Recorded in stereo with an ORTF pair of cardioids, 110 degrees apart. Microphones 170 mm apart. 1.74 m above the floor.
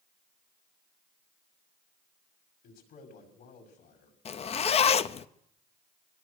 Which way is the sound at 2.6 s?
65° left.